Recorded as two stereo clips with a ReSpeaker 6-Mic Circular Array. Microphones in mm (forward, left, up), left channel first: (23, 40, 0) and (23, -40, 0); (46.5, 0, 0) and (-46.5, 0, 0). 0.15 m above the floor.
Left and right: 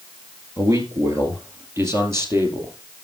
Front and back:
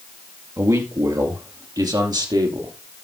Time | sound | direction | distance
0.6 | a man speaking | 130° right | 3 m